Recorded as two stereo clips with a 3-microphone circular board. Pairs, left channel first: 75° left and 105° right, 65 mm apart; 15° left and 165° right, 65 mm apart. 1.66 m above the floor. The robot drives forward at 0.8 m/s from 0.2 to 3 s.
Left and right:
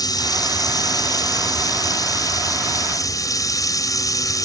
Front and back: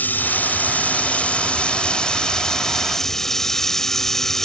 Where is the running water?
80° left; by 4.5 s 100° left.